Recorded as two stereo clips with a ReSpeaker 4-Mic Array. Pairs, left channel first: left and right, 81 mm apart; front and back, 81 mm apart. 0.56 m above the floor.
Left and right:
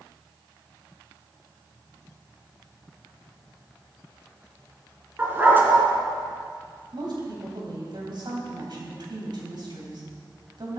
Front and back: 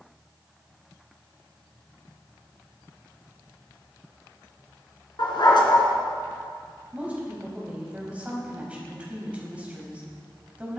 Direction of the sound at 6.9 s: 105° right.